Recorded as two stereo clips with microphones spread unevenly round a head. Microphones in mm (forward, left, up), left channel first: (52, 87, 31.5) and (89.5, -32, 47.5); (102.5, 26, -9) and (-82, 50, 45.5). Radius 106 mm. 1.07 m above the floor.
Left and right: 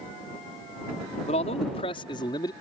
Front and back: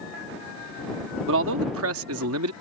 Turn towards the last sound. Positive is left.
turn(degrees=175)